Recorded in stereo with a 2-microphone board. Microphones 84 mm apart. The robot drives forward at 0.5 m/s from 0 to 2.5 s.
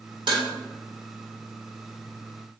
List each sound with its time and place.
0.3 s dishes clattering: 65° right (ahead or behind), 1.7 m; by 0.5 s 70° right (ahead or behind), 1.7 m